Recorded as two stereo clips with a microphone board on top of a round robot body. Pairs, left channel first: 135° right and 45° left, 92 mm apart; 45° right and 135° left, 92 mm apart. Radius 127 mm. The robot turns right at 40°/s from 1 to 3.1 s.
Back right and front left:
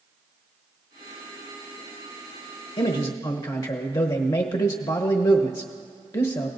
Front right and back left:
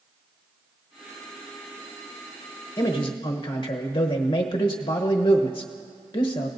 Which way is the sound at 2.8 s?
105° right.